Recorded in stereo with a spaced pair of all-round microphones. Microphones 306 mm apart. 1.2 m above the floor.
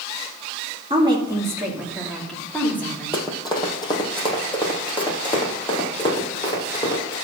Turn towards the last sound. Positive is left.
turn(degrees=15)  # may be behind; listen again after turning